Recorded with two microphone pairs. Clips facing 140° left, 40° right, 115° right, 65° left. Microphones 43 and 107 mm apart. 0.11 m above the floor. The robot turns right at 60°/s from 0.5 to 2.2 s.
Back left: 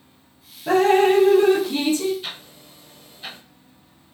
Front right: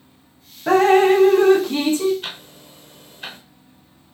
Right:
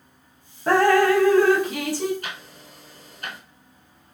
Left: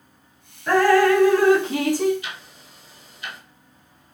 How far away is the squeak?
No squeak in this recording.